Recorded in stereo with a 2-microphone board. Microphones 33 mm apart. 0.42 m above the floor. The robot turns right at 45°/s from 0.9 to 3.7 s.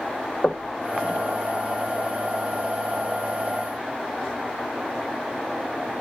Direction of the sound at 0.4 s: 40° left (ahead or behind).